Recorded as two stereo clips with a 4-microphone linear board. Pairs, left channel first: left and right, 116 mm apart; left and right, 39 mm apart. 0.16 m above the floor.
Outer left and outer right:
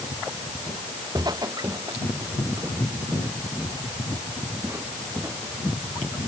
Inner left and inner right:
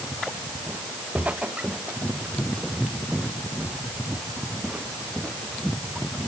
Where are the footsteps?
35° right (ahead or behind); by 6.3 s 15° right (ahead or behind).